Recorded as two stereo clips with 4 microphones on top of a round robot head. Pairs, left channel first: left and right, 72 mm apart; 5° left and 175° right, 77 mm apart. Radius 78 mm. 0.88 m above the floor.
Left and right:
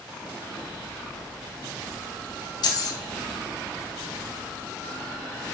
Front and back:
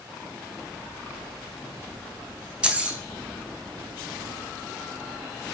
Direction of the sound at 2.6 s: 110° left.